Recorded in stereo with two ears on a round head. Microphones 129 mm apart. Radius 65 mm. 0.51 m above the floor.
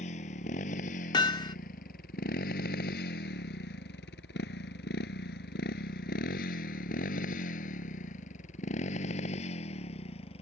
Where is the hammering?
30° left (ahead or behind).